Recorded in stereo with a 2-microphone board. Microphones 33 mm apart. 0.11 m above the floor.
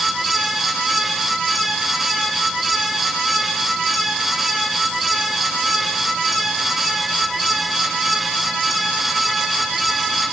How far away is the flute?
I don't hear a flute.